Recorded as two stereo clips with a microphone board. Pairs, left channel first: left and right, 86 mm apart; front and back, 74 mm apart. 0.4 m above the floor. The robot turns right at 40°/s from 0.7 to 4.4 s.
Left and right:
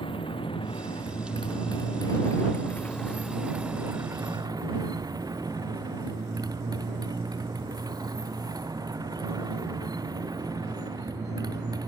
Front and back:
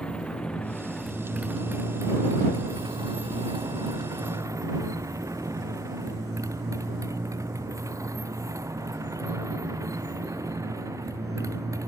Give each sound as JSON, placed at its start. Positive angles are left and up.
{"t": 0.0, "sound": "a motorcycle", "azimuth_deg": 80}